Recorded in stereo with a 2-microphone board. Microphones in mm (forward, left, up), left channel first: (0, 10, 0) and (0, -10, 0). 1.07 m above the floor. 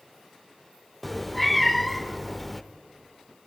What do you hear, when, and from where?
1.0 s a cat meowing: 5° left (ahead or behind), 0.8 m